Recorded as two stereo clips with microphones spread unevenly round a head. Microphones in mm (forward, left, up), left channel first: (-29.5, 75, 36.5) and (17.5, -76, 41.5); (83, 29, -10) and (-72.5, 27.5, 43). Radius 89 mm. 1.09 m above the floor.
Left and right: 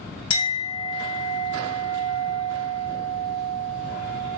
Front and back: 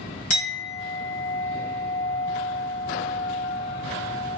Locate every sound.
0.3 s a clink: 45° left, 1.7 m